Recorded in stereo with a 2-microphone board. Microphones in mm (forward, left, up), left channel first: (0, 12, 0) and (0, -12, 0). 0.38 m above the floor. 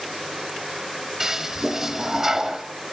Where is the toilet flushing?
15° right (ahead or behind), 1.1 m.